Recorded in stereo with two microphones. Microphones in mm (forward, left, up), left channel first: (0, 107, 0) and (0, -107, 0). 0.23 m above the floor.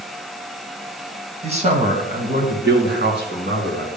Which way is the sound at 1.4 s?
30° right (ahead or behind).